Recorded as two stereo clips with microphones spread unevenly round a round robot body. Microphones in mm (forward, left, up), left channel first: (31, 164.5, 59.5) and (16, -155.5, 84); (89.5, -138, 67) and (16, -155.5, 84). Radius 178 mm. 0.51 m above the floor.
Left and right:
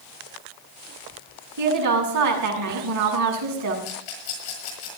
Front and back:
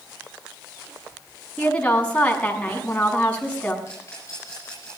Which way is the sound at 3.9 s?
85° left.